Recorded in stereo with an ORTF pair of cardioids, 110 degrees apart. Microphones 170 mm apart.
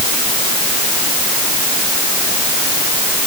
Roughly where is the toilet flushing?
No toilet flushing in this recording.